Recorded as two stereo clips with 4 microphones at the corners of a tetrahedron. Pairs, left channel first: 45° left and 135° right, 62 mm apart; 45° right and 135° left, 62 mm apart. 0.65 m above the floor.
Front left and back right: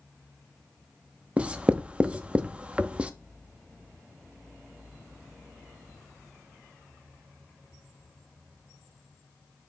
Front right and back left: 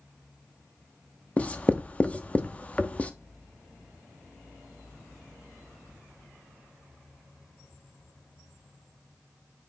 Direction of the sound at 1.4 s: 80° right.